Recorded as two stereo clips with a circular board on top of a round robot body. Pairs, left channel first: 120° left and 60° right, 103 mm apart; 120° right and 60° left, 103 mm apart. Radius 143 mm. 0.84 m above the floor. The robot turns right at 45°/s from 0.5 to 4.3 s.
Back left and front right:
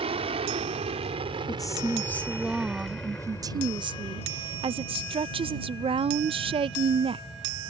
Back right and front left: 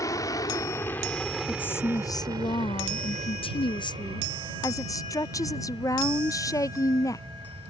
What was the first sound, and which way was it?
An aircraft, 65° right.